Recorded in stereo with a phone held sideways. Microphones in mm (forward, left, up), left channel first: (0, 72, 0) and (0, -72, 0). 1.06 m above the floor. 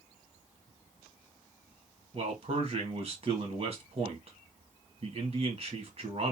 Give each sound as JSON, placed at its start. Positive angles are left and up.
{"t": 2.1, "sound": "a man speaking", "side_deg": -45, "distance_m": 1.7}